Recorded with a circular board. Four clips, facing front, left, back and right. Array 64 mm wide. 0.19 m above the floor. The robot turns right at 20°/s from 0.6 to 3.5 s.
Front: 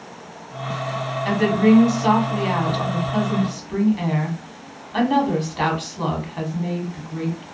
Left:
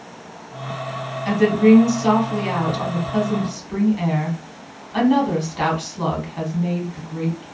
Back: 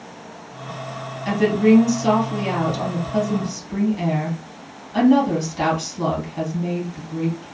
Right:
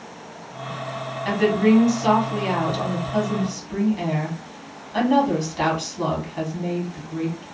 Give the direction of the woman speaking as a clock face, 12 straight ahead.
1 o'clock.